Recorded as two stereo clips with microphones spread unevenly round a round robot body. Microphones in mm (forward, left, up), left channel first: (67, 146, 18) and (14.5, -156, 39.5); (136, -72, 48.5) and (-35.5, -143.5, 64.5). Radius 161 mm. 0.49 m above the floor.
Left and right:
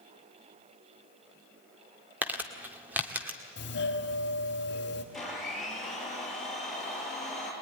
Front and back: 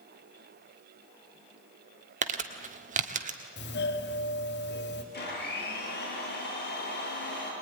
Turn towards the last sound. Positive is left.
turn(degrees=-10)